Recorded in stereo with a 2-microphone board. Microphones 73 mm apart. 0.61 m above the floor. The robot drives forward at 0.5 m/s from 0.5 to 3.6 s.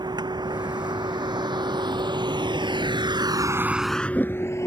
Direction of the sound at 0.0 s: 70° right (ahead or behind).